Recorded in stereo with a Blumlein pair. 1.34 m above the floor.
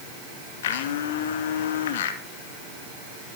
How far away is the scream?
No scream in this recording.